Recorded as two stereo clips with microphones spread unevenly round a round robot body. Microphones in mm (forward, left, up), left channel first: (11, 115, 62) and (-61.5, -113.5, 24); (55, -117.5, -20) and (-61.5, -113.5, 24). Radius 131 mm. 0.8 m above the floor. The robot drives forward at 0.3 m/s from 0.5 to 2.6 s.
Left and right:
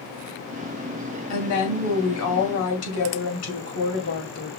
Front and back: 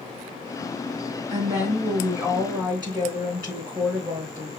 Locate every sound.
1.3 s a woman speaking: 90° left, 2 m; by 4.6 s 100° left, 2 m